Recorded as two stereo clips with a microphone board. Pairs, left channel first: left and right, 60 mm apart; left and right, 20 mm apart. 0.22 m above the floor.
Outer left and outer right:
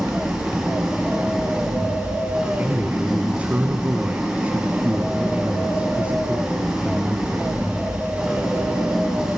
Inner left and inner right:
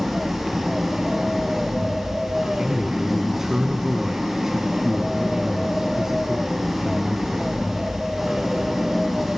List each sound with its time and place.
0.0 s an engine running: 10° right (ahead or behind), 9.5 m
2.6 s a man speaking: 20° right (ahead or behind), 1.8 m